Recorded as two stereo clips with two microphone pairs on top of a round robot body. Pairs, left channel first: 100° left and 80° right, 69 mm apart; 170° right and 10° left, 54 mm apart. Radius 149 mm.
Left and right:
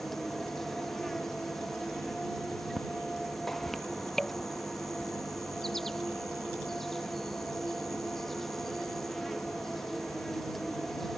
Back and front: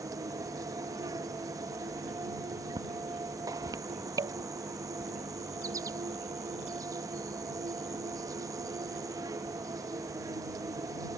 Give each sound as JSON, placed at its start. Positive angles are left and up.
{"t": 0.0, "sound": "an insect", "azimuth_deg": 15}